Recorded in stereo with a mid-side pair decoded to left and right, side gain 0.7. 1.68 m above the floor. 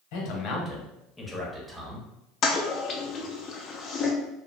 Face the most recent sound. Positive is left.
turn(degrees=40)